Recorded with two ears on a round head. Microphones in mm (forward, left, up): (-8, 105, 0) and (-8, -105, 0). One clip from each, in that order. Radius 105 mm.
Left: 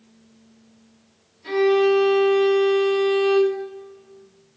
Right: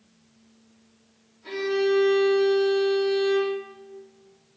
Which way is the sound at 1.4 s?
75° left (ahead or behind).